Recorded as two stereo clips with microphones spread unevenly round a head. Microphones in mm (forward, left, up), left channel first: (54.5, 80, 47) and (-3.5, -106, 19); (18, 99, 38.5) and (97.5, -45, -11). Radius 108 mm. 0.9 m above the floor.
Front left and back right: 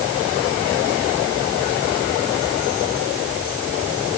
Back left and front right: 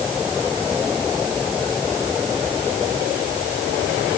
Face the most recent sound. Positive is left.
No sound to turn to.